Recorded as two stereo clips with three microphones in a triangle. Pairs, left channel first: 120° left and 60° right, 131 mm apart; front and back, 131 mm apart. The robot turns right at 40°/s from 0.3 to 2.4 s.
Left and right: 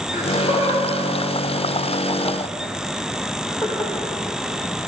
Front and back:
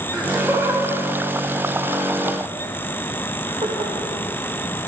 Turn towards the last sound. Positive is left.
turn(degrees=-175)